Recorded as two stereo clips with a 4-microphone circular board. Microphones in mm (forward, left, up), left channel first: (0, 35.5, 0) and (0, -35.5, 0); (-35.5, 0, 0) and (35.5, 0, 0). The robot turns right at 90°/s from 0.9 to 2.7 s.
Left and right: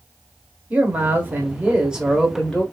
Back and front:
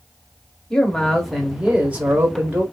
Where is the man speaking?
120° right, 1.3 m; by 2.6 s 35° left, 1.3 m.